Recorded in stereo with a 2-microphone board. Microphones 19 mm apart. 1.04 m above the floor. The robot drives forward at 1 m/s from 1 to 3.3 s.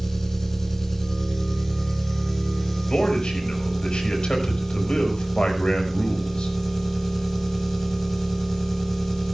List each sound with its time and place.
0.0 s an engine running: 25° left (ahead or behind), 4.5 m; by 9.3 s 15° left (ahead or behind), 6.5 m
2.9 s a man speaking: 70° left (ahead or behind), 5.5 m; by 6.5 s 65° left (ahead or behind), 6 m